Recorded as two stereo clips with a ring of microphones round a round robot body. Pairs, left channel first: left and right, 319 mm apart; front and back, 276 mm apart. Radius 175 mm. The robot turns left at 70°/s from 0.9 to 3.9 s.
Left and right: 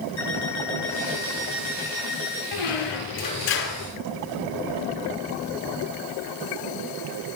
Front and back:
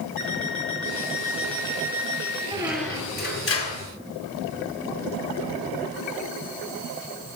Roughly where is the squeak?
Left.